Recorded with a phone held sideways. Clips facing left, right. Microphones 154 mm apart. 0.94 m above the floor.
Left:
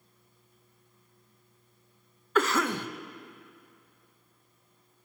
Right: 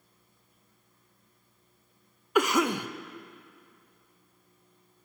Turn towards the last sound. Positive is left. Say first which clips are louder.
# right 2 dB
turn(degrees=-15)  # may be behind; listen again after turning